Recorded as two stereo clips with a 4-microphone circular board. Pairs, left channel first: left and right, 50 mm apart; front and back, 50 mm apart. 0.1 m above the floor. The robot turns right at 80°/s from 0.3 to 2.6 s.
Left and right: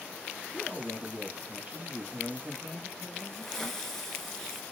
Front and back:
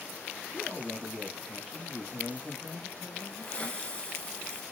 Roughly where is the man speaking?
Behind right.